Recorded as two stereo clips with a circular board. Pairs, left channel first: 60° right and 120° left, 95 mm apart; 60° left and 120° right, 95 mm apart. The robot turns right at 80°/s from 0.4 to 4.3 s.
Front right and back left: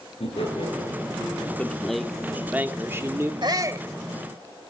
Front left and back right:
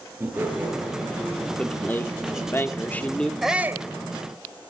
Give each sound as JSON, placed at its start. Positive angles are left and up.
{"t": 0.2, "sound": "laughter", "azimuth_deg": -55, "distance_m": 7.0}
{"t": 1.6, "sound": "a man speaking", "azimuth_deg": -5, "distance_m": 1.4}
{"t": 3.4, "sound": "a shout", "azimuth_deg": 150, "distance_m": 1.7}